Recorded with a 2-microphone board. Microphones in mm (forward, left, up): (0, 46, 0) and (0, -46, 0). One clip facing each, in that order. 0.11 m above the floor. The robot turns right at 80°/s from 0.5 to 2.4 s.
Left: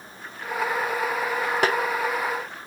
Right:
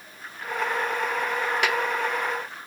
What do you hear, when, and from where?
1.6 s a snare drum: 40° left (ahead or behind), 1.0 m; by 1.8 s 30° left (ahead or behind), 1.0 m